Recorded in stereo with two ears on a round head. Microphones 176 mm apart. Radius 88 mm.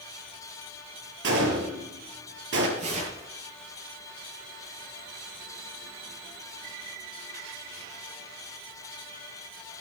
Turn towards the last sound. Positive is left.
turn(degrees=-40)  # may be behind; listen again after turning